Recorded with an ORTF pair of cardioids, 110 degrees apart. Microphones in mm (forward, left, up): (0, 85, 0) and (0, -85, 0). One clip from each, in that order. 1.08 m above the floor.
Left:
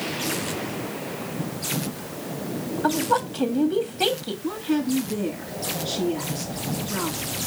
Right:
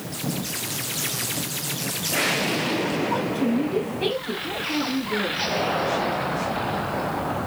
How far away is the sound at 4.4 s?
About 2.5 m.